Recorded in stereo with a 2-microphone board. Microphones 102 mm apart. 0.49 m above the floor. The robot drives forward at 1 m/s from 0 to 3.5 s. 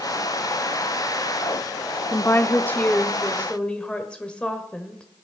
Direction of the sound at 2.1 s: 25° left (ahead or behind).